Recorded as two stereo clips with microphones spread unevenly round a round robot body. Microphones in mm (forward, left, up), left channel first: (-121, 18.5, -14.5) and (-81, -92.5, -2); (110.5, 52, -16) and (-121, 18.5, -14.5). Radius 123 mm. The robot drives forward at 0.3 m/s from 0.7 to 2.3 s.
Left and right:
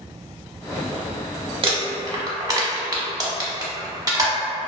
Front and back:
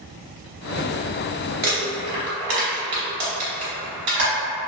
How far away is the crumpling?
About 0.8 m.